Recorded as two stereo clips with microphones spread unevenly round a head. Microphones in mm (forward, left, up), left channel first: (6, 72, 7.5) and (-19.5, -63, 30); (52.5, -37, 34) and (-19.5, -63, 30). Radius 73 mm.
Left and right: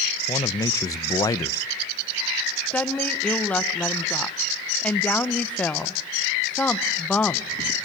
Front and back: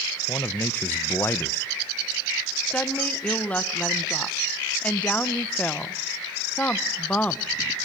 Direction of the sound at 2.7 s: 65° left.